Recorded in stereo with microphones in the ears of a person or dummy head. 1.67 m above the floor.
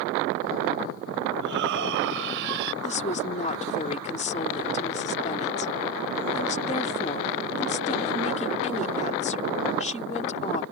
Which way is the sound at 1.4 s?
70° right (ahead or behind).